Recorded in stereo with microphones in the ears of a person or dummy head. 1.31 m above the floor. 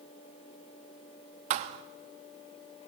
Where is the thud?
45° right (ahead or behind), 0.9 m.